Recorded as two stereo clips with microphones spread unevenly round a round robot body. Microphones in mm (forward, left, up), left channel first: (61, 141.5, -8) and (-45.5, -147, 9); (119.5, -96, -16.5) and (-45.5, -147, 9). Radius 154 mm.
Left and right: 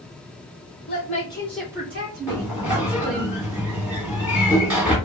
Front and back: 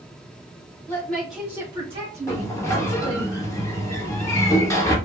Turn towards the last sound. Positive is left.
turn(degrees=-20)